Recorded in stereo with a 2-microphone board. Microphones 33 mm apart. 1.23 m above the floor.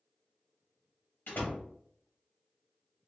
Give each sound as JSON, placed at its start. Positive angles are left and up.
{"t": 1.3, "sound": "a door slam", "side_deg": 80, "distance_m": 1.4}